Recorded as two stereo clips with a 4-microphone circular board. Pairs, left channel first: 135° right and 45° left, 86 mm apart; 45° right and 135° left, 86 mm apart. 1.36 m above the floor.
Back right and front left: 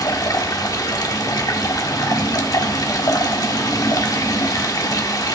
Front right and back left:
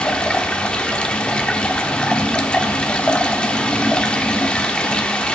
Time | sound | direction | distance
0.0 | running water | 120° right | 1.3 m